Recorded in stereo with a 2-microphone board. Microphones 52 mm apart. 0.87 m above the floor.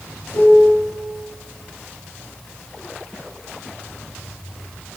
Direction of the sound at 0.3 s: 65° left (ahead or behind).